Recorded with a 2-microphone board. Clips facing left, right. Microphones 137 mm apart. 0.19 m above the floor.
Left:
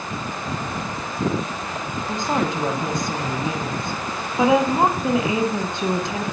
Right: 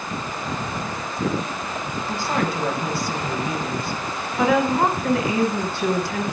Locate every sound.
2.1 s a woman speaking: 20° left (ahead or behind), 1.2 m